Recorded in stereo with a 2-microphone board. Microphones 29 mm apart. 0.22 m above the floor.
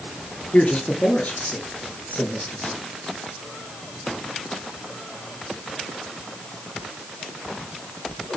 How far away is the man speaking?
About 4.5 m.